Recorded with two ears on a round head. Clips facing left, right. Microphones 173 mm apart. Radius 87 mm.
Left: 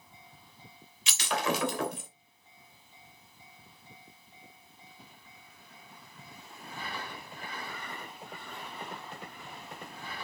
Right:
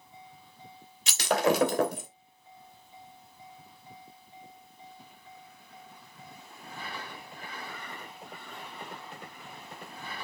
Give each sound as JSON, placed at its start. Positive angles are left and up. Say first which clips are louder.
{"t": 1.1, "sound": "breaking glass", "louder": "right 6 dB", "side_deg": -35, "distance_m": 2.5}